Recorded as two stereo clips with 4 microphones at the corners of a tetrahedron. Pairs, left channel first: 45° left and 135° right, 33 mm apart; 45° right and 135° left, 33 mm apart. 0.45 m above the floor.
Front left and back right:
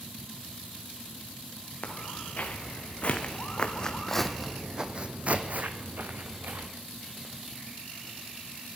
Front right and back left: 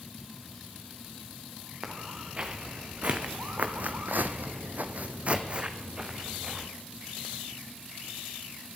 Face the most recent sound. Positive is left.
turn(degrees=-150)